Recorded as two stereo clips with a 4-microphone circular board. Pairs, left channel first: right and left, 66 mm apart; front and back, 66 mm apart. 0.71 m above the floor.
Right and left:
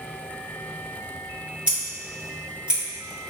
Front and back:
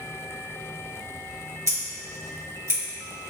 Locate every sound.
1.7 s scissors: 155° left, 1.5 m